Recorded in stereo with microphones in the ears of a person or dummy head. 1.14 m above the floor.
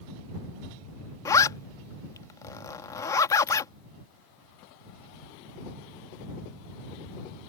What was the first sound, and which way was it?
A zipper, 20° left (ahead or behind).